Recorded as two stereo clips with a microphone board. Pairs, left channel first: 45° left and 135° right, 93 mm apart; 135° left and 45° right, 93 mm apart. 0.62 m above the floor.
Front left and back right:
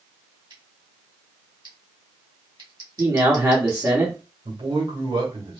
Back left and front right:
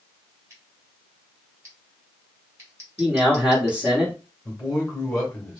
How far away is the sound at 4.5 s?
About 1.8 m.